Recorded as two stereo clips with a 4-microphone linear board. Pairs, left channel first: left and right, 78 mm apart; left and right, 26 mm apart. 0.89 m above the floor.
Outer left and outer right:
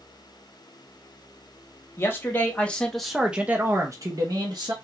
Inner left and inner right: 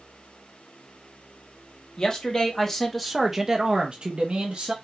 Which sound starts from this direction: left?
A man speaking, at 2.0 s.